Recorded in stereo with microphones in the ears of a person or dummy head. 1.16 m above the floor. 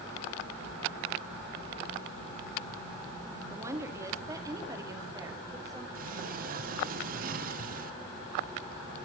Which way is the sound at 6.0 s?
50° right (ahead or behind).